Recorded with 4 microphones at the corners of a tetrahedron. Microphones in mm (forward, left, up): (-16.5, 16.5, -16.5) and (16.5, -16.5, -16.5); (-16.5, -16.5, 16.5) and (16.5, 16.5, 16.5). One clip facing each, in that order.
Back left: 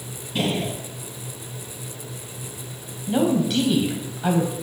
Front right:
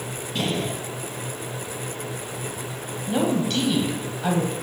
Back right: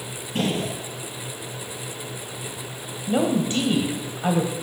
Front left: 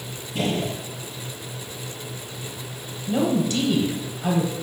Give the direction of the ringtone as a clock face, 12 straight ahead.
I don't hear a ringtone.